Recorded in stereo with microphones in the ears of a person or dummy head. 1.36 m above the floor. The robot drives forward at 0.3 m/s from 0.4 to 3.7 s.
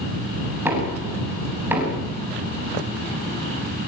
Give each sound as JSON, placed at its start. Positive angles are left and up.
{"t": 0.7, "sound": "knocking", "side_deg": -15, "distance_m": 7.0}